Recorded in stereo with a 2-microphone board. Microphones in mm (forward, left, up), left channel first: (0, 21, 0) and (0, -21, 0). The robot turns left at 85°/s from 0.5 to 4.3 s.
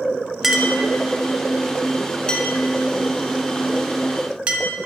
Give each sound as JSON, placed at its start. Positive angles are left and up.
{"t": 0.4, "sound": "a clink", "side_deg": -5, "distance_m": 0.7}